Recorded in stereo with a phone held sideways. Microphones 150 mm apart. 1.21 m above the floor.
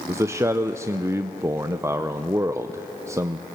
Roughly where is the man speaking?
Centre.